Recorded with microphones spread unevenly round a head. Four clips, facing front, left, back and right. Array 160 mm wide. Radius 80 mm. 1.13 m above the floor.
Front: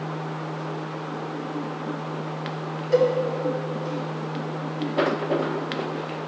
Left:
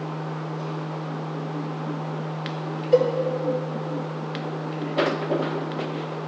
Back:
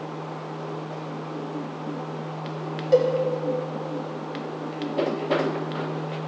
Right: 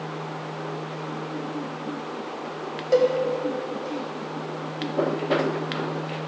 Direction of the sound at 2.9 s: 125° right.